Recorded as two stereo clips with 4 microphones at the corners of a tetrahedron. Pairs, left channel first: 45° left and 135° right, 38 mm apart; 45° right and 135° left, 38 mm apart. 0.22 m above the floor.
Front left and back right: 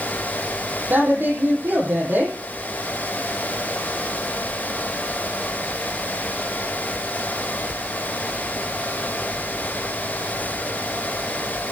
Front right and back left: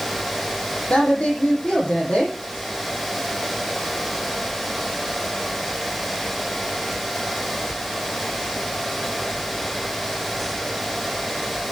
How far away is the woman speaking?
About 8.5 m.